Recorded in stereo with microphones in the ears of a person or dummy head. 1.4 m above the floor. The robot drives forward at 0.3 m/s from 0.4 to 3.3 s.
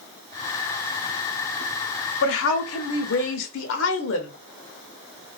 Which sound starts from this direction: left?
A woman speaking, at 2.2 s.